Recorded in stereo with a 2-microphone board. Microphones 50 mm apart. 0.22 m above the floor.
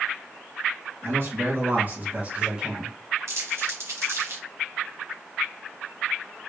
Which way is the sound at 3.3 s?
70° right (ahead or behind).